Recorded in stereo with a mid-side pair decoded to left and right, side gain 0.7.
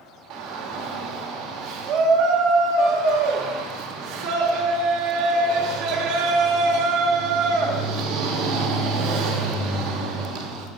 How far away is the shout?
About 1.6 m.